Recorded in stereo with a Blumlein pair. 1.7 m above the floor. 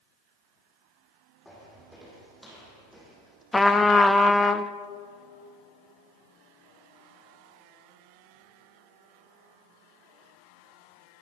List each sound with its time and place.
1.4 s footsteps: straight ahead, 5.5 m; by 3.4 s 10° right, 5 m
3.5 s a trumpet: 10° left, 0.7 m